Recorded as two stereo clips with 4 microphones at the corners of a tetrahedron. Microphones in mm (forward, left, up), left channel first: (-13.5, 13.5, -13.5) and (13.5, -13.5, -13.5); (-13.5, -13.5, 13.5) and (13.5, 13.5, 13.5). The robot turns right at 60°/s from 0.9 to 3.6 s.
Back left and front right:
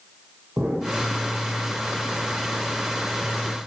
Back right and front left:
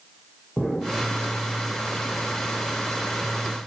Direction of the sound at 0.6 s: 35° right.